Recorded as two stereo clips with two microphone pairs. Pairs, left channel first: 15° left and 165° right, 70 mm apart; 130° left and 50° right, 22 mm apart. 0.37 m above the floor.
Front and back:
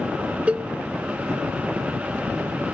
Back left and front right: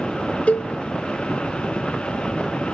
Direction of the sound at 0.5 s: 125° left.